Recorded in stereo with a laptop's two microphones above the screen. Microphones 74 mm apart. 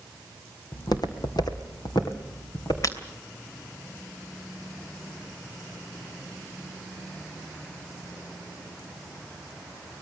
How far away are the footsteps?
About 2.5 m.